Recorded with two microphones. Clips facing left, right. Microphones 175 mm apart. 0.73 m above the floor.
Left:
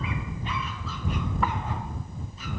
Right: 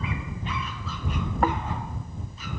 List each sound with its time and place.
1.4 s snoring: 50° right (ahead or behind)